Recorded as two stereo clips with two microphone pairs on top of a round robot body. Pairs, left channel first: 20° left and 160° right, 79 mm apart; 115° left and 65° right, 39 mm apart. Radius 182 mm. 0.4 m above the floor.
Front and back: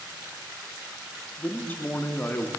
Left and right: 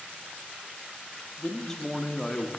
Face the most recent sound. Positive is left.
turn(degrees=60)